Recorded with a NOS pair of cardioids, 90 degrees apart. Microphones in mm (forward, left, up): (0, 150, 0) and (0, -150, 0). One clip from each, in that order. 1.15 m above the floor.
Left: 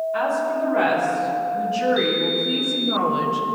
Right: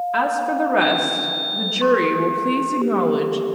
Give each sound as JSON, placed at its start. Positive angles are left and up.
{"t": 0.1, "sound": "a woman speaking", "azimuth_deg": -70, "distance_m": 3.0}